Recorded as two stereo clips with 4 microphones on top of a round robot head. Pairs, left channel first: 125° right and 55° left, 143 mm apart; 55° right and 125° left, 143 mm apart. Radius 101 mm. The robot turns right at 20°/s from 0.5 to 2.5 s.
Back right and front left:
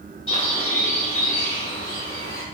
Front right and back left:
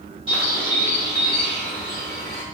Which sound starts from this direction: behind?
A bird, at 0.3 s.